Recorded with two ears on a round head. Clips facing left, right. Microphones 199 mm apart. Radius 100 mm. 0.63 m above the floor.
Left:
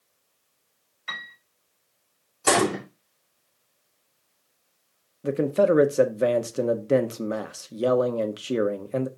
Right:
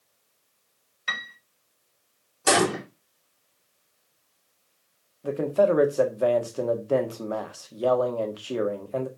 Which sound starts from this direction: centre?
A gunshot, at 2.5 s.